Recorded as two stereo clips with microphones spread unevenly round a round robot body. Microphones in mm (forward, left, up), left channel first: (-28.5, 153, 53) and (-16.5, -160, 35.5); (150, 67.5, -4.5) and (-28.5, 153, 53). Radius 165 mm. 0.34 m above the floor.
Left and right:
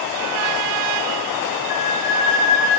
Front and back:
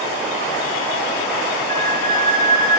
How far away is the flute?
About 3.5 m.